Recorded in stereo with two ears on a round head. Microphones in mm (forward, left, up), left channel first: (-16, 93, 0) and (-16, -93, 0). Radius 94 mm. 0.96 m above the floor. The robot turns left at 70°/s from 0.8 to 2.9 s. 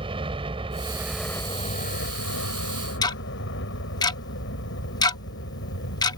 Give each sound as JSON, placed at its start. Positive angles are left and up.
{"t": 0.0, "sound": "a helicopter", "azimuth_deg": -155}
{"t": 3.0, "sound": "ticking", "side_deg": 20}